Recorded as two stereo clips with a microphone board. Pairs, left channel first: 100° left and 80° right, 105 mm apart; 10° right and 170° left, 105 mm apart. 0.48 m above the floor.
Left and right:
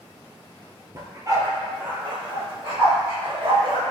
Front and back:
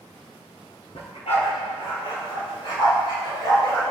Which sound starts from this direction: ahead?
A dog barking, at 0.9 s.